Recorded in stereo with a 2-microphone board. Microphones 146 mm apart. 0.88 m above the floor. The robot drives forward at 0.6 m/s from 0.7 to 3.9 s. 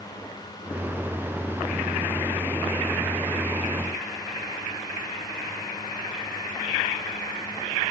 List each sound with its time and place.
Only background noise.